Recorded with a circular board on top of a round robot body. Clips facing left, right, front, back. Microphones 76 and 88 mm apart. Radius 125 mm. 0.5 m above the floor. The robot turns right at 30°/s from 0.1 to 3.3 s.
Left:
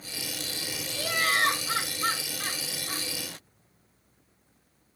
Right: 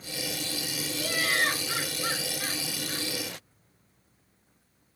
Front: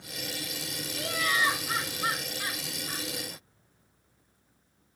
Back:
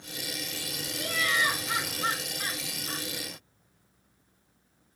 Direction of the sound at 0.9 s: 50° left.